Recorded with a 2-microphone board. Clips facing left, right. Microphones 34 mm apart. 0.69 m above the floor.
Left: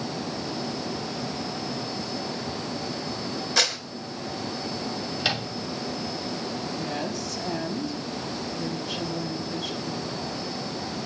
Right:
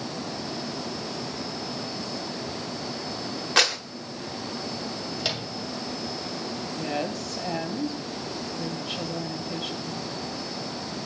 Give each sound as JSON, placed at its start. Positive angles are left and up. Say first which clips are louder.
{"t": 3.6, "sound": "a clap", "louder": "right 3 dB", "side_deg": -55, "distance_m": 3.0}
{"t": 5.2, "sound": "a microwave", "louder": "left 4 dB", "side_deg": 15, "distance_m": 3.0}
{"t": 6.8, "sound": "a woman speaking", "louder": "right 1 dB", "side_deg": -50, "distance_m": 4.5}